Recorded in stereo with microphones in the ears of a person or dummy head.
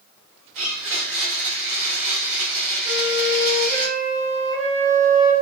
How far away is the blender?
About 1.7 m.